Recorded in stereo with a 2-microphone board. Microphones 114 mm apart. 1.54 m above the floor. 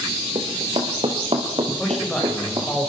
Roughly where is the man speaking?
Centre.